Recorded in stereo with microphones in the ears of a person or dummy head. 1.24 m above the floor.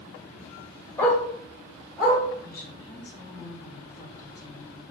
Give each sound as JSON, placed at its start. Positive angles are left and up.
{"t": 1.0, "sound": "a dog barking", "side_deg": 20, "distance_m": 1.9}
{"t": 2.4, "sound": "a woman speaking", "side_deg": 20, "distance_m": 1.1}